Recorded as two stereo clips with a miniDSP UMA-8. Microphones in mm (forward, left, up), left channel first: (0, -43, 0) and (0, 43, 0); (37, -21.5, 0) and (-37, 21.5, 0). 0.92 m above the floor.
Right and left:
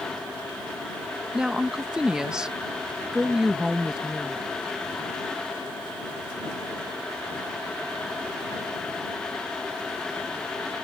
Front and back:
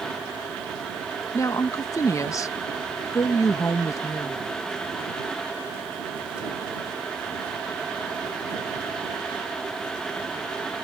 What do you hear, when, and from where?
1.3 s a woman speaking: 10° left